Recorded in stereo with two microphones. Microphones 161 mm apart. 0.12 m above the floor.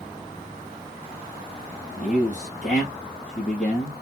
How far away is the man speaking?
About 3 m.